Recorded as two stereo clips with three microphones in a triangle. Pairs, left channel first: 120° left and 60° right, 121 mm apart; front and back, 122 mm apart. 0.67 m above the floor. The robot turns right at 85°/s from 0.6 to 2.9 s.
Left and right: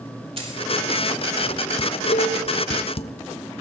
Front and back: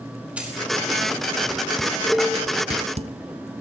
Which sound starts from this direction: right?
A dropped coin, at 0.4 s.